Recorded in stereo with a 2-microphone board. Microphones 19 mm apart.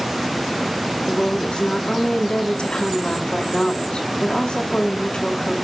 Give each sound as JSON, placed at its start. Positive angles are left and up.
{"t": 1.1, "sound": "a woman speaking", "side_deg": 75, "distance_m": 3.5}